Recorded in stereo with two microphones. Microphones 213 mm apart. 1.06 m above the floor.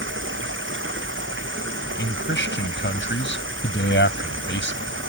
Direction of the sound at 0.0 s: 65° right (ahead or behind).